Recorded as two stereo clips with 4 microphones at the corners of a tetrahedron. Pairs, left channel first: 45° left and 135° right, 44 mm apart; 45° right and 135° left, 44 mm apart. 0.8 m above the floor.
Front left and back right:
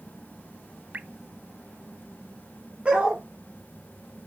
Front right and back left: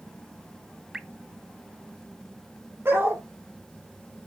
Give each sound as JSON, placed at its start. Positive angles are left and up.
{"t": 0.9, "sound": "dripping", "azimuth_deg": -160, "distance_m": 0.7}
{"t": 2.9, "sound": "a dog barking", "azimuth_deg": 160, "distance_m": 5.0}